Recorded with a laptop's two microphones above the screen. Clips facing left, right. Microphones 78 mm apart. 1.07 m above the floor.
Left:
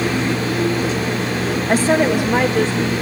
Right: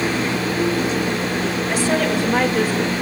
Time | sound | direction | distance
1.7 | a woman speaking | 50° left (ahead or behind) | 1.3 m